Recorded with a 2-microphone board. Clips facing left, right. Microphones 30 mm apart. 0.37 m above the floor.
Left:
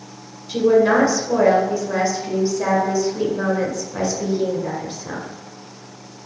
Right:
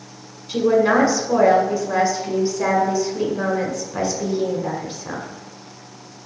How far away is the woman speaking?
About 1.1 m.